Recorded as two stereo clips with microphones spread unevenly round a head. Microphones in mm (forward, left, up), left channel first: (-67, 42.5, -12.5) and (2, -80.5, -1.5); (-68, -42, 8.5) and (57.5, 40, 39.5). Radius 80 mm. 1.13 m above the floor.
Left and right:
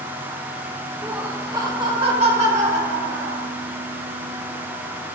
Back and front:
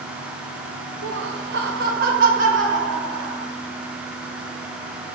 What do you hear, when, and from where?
1.0 s laughter: 30° left, 1.1 m; by 3.5 s 15° right, 3 m